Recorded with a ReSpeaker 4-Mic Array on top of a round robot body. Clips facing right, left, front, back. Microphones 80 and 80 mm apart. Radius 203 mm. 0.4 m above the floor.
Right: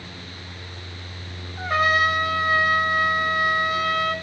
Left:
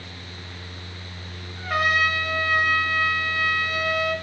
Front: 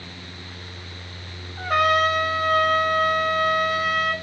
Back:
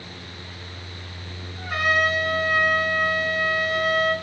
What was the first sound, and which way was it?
A trumpet, 35° right.